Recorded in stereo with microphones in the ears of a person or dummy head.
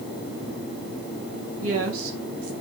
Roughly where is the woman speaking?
Right.